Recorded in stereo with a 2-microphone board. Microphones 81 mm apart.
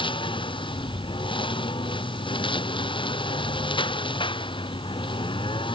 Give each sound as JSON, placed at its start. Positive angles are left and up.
{"t": 0.0, "sound": "a lawn mower", "side_deg": 75}